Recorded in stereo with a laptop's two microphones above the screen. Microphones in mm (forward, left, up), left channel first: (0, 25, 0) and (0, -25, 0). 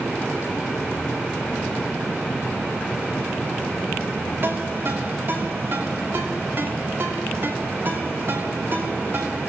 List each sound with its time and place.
4.4 s a ringtone: 50° right (ahead or behind), 3 m